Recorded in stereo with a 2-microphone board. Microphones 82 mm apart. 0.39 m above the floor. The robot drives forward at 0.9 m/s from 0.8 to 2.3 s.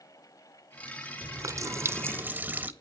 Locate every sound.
1.2 s a running tap: 40° right (ahead or behind), 0.6 m; by 2.7 s 25° right (ahead or behind), 1.0 m